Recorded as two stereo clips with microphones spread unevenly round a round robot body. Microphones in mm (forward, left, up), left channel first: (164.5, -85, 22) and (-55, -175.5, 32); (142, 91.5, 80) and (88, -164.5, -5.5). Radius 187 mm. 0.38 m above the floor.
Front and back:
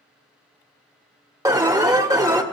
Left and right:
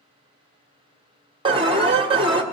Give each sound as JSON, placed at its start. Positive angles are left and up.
{"t": 1.4, "sound": "an alarm", "azimuth_deg": -90, "distance_m": 1.5}